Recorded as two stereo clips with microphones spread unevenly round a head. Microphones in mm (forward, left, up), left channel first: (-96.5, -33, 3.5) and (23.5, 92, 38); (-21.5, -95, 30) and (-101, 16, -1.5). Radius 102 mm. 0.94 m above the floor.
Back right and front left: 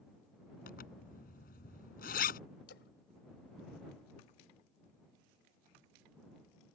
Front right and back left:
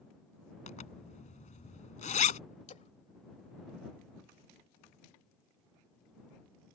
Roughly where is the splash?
Right.